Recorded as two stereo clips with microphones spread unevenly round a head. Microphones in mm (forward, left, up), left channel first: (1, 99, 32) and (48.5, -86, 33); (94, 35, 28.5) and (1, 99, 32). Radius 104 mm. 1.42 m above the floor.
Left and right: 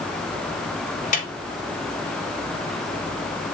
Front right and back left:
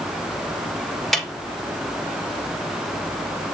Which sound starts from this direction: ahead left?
A snare drum, at 1.1 s.